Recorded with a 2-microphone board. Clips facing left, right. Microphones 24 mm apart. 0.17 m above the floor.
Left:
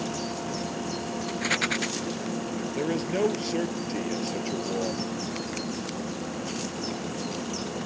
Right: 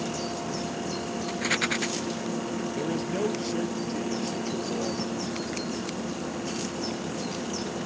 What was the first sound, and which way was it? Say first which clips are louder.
A rattle: even; centre (ahead or behind).